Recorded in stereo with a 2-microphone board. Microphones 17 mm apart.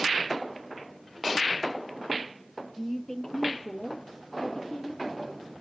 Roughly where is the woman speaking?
Left.